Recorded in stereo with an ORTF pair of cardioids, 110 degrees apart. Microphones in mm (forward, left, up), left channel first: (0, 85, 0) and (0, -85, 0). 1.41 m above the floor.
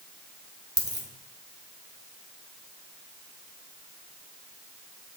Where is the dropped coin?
25° right, 2 m.